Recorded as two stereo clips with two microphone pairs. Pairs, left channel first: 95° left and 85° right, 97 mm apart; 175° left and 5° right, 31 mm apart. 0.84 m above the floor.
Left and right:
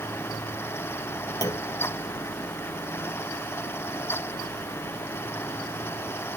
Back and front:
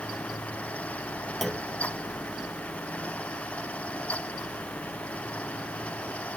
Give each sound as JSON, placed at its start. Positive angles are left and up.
{"t": 1.4, "sound": "a clunk", "azimuth_deg": 85}